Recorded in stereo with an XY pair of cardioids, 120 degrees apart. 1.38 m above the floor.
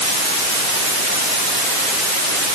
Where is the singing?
No singing in this recording.